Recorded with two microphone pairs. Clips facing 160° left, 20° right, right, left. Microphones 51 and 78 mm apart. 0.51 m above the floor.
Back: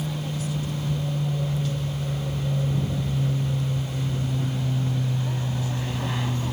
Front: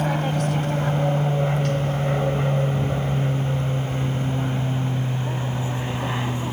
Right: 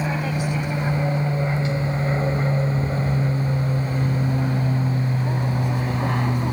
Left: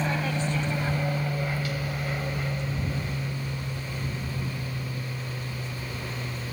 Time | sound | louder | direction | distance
0.0 | an aircraft | front 8 dB, right 3 dB | 5° right | ?